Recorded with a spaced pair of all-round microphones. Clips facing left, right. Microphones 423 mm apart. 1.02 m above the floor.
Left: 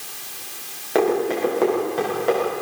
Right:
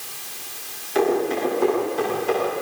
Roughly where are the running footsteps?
Left.